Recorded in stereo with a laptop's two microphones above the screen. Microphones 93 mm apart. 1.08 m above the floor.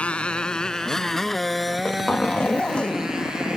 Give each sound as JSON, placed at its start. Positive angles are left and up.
{"t": 0.0, "sound": "a motorcycle", "side_deg": 15}
{"t": 1.7, "sound": "a zipper", "side_deg": 15}